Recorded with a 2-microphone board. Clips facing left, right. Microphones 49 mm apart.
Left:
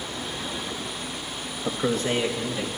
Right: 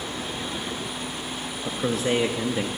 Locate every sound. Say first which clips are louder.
1.6 s a man speaking: even; 15° left (ahead or behind), 0.8 m; by 2.7 s 30° right (ahead or behind), 1.1 m